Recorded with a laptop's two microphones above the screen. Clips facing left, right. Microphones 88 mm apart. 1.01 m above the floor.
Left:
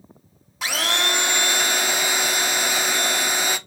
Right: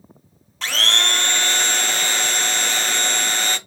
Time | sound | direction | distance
0.6 | a blender | 10° left (ahead or behind) | 0.7 m